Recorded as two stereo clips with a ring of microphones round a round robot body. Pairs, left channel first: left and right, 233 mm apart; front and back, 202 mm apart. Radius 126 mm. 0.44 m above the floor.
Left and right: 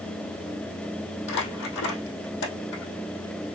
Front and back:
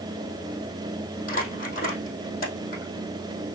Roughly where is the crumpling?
Ahead left.